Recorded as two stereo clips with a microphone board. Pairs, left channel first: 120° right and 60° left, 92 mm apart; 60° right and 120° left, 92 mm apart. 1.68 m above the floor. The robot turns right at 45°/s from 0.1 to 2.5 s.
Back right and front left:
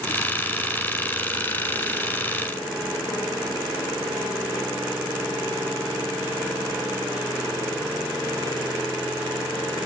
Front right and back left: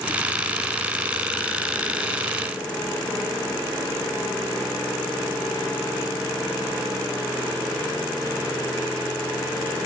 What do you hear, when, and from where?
Only background noise.